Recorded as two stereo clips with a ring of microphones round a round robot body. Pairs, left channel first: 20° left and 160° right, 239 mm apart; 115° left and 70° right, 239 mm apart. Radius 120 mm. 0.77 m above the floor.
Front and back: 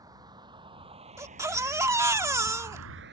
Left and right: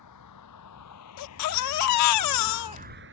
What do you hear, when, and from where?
0.0 s a vehicle: 125° left; by 3.1 s 110° right
1.2 s a baby crying: 125° left